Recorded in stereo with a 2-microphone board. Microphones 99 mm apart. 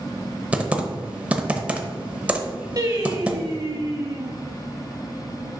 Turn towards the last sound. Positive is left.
turn(degrees=-40)  # may be behind; listen again after turning